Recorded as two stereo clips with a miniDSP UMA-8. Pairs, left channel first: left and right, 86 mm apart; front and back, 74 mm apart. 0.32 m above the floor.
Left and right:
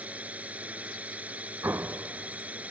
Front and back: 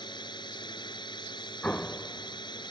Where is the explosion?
55° right.